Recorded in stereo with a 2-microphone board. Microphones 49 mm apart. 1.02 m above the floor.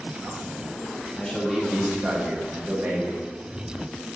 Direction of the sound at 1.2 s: 5° left (ahead or behind).